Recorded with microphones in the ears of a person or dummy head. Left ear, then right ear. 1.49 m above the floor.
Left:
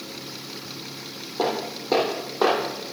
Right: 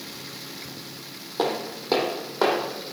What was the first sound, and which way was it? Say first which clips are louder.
Footsteps: left 1 dB; 20° right (ahead or behind).